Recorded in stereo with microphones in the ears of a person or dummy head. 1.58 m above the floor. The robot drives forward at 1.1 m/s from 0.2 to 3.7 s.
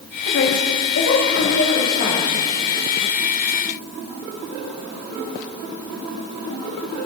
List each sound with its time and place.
0.2 s a woman speaking: 70° left (ahead or behind), 3.5 m; by 2.4 s 45° left (ahead or behind), 5 m